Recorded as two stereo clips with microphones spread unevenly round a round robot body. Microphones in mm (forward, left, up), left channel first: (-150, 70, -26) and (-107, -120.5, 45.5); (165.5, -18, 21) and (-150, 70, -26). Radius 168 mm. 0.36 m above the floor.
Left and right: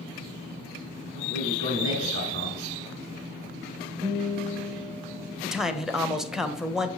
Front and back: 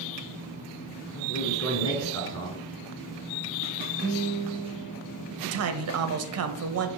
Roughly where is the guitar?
Behind right.